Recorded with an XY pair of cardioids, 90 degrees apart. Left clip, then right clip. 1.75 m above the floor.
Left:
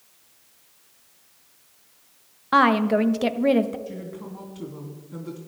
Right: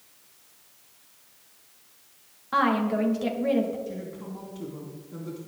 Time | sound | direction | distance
2.5 | a woman speaking | 70° left | 0.8 m
3.9 | a woman speaking | 30° left | 3 m